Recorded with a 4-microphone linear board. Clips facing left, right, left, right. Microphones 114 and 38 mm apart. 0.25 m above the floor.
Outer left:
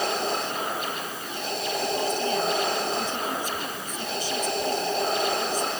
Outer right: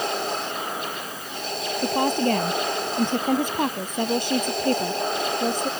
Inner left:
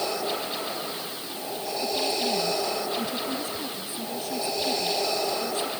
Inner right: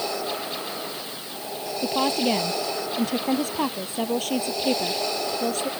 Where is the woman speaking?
65° right (ahead or behind).